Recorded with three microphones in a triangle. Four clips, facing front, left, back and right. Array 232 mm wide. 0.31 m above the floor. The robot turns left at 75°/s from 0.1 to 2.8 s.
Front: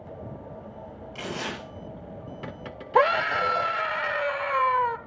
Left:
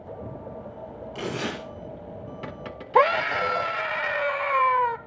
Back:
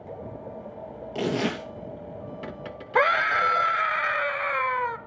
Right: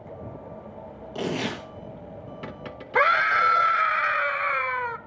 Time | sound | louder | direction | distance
1.1 | tearing paper | right 2 dB, back 8 dB | 145° right | 4 m
3.0 | a scream | left 1 dB, front 1 dB | 65° left | 0.9 m